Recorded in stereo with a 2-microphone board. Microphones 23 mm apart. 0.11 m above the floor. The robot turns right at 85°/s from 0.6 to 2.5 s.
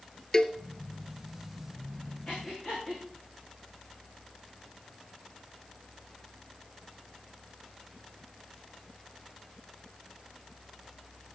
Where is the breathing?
55° left (ahead or behind), 5 m; by 3.0 s 35° left (ahead or behind), 5 m.